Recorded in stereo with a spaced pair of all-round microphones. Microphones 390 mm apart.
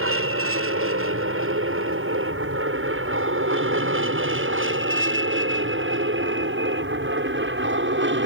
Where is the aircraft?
35° right (ahead or behind); by 8.3 s 30° right (ahead or behind).